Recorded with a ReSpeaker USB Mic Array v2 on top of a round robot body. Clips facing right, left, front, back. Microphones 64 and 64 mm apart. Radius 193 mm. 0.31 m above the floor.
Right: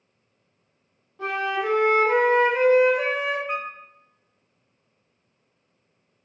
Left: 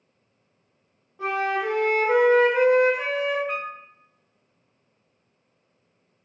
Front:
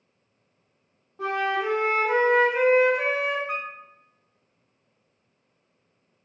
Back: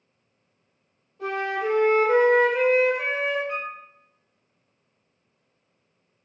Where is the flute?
10° left, 1.0 m.